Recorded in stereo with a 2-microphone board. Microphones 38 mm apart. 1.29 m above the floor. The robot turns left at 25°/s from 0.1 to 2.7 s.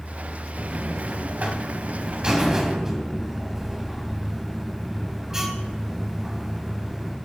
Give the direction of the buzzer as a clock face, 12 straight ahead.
4 o'clock.